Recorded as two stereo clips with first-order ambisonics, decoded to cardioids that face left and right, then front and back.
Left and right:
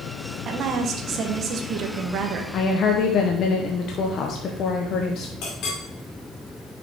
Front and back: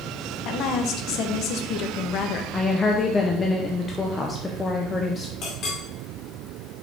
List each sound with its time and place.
0.5 s a woman speaking: 40° right, 0.9 m
2.5 s a woman speaking: 65° left, 0.6 m
5.4 s a clink: 50° left, 1.8 m